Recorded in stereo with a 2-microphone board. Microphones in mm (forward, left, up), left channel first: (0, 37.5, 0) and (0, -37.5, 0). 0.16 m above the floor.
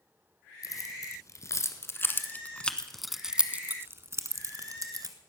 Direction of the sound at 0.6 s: 50° left (ahead or behind).